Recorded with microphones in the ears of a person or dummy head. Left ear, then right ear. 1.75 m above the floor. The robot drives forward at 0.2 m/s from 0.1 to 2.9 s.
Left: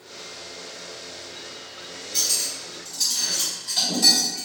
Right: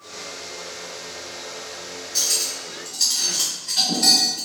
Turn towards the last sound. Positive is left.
turn(degrees=15)  # may be behind; listen again after turning